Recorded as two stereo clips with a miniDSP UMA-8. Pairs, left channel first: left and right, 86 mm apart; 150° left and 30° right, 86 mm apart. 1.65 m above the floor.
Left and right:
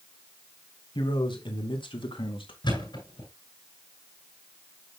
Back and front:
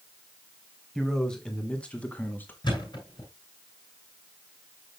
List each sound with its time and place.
0.9 s a man speaking: 65° left, 2.5 m; by 2.5 s 80° left, 2.5 m
2.6 s a thud: 120° left, 9 m